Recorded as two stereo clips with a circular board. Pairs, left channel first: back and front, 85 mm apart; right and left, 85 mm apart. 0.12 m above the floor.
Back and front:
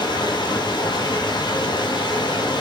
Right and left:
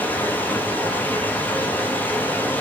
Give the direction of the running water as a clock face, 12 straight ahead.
5 o'clock.